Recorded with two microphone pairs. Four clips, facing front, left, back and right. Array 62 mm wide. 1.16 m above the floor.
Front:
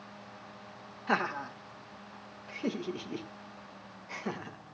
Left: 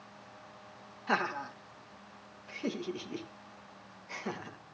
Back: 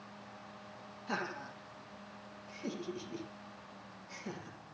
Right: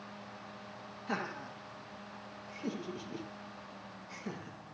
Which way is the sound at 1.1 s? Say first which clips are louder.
Left 7 dB, front 8 dB; 25° left.